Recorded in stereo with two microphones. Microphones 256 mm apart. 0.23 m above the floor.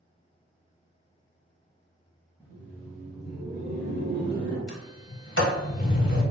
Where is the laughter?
10° right (ahead or behind), 1.4 m; by 4.6 s 20° right (ahead or behind), 1.3 m.